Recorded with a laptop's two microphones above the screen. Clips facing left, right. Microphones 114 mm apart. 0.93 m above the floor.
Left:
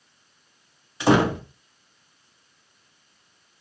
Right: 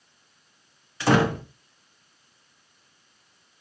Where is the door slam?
15° left (ahead or behind), 1.0 m.